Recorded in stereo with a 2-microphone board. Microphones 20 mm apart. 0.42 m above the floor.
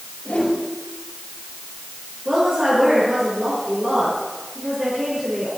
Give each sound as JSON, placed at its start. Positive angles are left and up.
{"t": 0.2, "sound": "a whoosh", "side_deg": 80, "distance_m": 4.0}
{"t": 2.2, "sound": "a woman speaking", "side_deg": -25, "distance_m": 6.0}